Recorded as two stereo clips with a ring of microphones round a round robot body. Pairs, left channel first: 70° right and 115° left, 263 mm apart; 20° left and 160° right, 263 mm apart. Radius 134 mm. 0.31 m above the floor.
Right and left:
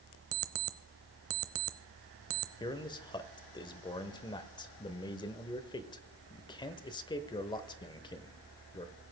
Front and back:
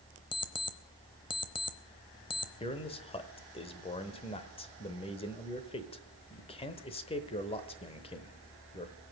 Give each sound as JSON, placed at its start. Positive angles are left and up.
{"t": 0.3, "sound": "an alarm clock", "azimuth_deg": 90, "distance_m": 0.8}
{"t": 2.6, "sound": "a man speaking", "azimuth_deg": -15, "distance_m": 0.9}